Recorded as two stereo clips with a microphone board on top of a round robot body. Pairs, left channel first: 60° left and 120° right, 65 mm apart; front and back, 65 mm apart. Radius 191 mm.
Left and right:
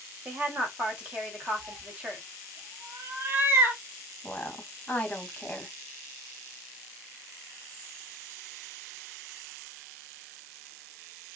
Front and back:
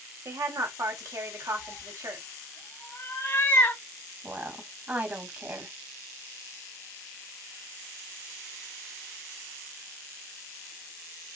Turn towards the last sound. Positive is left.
turn(degrees=125)